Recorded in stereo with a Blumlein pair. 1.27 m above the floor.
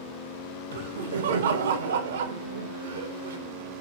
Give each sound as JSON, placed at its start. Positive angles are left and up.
{"t": 0.7, "sound": "laughter", "azimuth_deg": -60, "distance_m": 0.7}